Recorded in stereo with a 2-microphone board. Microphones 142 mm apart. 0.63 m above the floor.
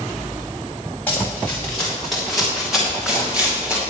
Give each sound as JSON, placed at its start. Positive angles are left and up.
{"t": 1.1, "sound": "running footsteps", "side_deg": 10, "distance_m": 5.0}